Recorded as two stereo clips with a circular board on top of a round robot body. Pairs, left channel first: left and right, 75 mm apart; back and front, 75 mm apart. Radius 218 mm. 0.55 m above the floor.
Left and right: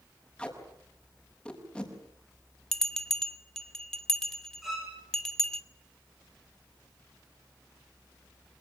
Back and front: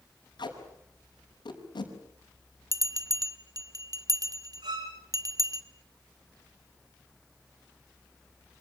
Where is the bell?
10° left, 1.5 m.